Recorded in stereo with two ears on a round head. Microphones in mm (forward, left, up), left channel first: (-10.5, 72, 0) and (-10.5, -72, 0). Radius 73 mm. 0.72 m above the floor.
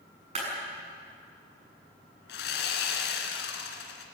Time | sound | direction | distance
0.3 | a clap | 40° right (ahead or behind) | 7 m
2.3 | sawing | 80° left | 2.5 m